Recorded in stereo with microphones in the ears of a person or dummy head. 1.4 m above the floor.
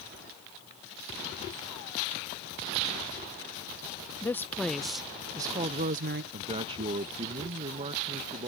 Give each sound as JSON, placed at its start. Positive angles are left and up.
{"t": 4.2, "sound": "a woman speaking", "side_deg": 15}
{"t": 6.3, "sound": "a man speaking", "side_deg": -30}